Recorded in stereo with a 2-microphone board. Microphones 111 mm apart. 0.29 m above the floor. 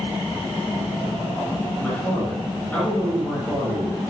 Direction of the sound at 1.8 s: 15° left (ahead or behind).